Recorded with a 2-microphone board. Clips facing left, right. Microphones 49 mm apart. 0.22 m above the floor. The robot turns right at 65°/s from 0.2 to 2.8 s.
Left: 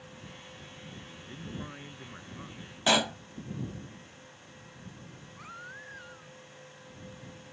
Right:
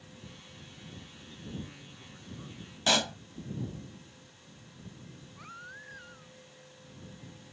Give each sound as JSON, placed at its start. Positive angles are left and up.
{"t": 1.0, "sound": "a man speaking", "azimuth_deg": 55}
{"t": 2.9, "sound": "a pop", "side_deg": 15}
{"t": 5.4, "sound": "a baby crying", "side_deg": 5}